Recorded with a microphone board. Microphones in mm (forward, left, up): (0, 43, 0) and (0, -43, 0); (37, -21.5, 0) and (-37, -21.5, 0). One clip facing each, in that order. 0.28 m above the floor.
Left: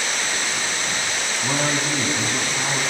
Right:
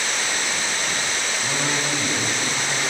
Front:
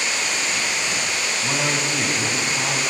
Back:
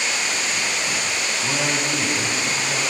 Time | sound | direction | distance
1.4 | a man speaking | 85° left | 2 m